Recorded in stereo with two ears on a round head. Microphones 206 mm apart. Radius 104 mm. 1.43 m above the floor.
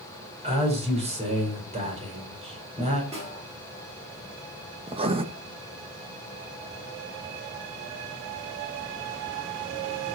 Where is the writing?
25° right (ahead or behind), 0.9 m.